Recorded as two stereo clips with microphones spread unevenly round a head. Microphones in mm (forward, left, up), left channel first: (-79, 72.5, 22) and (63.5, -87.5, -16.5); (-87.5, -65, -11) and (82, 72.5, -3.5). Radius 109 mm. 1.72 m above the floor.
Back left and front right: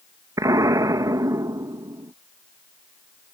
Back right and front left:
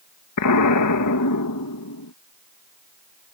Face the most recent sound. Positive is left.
turn(degrees=-125)